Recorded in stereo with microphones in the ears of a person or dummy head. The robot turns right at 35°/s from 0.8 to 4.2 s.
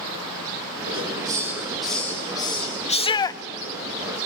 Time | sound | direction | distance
0.9 | a hiss | 35° right | 6.5 m
2.9 | a shout | 35° left (ahead or behind) | 0.7 m